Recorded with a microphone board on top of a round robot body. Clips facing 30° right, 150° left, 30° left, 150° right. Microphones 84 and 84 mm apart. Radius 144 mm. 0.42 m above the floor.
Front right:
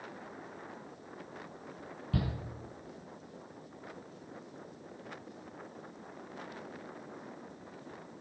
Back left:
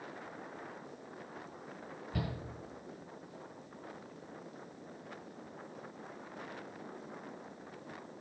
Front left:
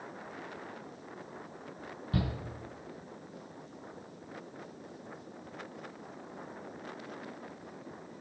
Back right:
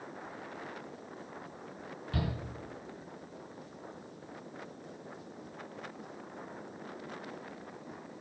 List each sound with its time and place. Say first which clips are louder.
2.1 s a shout: front right 4 dB, front left 2 dB; 30° right, 6.5 m